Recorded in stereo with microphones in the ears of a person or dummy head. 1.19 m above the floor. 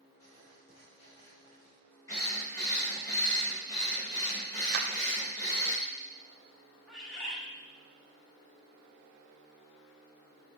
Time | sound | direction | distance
0.2 | writing | 15° left (ahead or behind) | 2.5 m
2.1 | a drill | 20° left (ahead or behind) | 3 m
4.7 | a clap | 50° right (ahead or behind) | 0.5 m
6.9 | a bird | centre (ahead or behind) | 1.4 m